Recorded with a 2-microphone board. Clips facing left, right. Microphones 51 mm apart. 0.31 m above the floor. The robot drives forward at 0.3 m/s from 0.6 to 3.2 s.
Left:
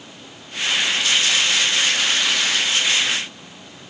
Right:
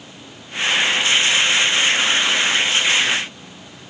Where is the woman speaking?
I don't hear a woman speaking.